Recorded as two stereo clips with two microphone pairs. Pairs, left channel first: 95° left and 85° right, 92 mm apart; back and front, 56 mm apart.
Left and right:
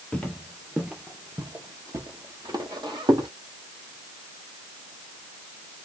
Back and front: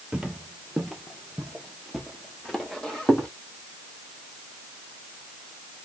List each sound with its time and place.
0.1 s footsteps: 45° left, 1.3 m; by 3.3 s 105° right, 2.5 m